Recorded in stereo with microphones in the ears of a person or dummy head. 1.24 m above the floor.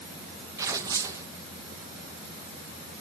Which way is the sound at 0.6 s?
15° right (ahead or behind).